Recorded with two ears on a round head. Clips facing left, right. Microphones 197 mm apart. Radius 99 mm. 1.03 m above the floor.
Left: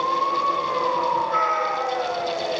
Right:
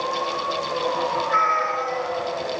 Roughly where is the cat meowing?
Right.